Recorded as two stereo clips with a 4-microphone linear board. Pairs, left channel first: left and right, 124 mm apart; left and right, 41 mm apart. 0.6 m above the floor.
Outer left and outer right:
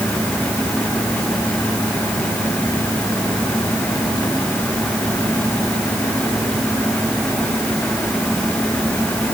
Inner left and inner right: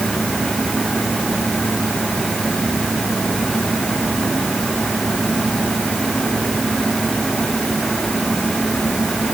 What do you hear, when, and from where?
Only background noise.